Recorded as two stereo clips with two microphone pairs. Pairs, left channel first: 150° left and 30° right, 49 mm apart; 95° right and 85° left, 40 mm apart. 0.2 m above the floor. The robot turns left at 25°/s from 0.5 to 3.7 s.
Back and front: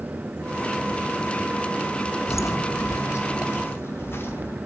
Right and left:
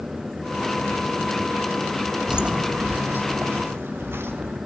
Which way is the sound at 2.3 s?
165° left.